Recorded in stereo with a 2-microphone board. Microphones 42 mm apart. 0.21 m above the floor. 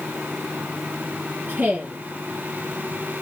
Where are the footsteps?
No footsteps in this recording.